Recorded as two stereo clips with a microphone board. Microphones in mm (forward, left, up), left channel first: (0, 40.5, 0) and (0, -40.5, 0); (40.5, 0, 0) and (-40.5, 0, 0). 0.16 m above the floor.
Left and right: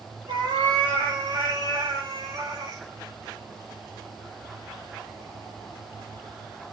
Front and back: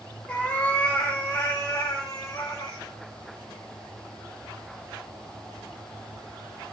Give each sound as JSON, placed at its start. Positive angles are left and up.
{"t": 0.3, "sound": "a cat meowing", "azimuth_deg": -70, "distance_m": 3.5}